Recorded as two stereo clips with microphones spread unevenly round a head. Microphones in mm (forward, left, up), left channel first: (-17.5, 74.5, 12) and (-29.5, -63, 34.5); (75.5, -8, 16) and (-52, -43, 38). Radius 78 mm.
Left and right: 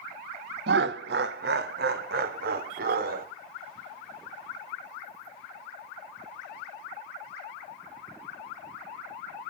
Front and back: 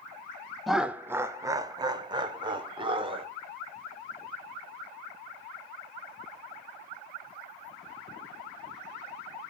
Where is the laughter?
75° right, 0.6 m; by 3.3 s 115° right, 1.9 m.